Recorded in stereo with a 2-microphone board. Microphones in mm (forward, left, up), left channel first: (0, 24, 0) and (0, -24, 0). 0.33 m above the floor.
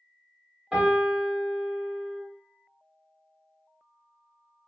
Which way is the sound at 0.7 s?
15° right (ahead or behind).